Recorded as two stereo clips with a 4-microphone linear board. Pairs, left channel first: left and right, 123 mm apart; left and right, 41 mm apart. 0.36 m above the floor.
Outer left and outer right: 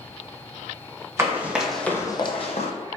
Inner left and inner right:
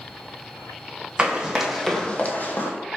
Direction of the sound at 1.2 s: 20° right (ahead or behind).